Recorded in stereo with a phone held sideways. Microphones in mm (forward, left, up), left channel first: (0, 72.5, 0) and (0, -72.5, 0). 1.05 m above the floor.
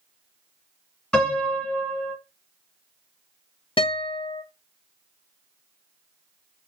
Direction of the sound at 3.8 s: 35° left (ahead or behind).